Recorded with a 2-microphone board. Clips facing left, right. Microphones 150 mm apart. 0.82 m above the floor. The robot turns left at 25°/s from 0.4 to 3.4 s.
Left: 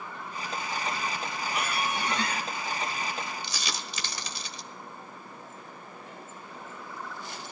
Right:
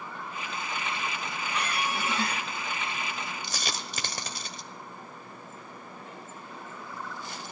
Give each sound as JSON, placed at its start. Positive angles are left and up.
{"t": 1.5, "sound": "a squeak", "side_deg": 10, "distance_m": 2.5}
{"t": 3.4, "sound": "a dropped coin", "side_deg": -50, "distance_m": 1.3}